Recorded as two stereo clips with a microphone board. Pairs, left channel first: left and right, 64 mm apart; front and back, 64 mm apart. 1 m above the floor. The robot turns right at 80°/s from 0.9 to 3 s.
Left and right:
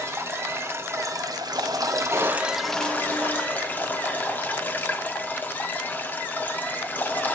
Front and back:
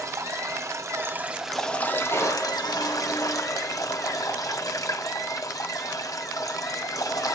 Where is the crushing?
50° right, 4 m; by 4.9 s 20° left, 4 m.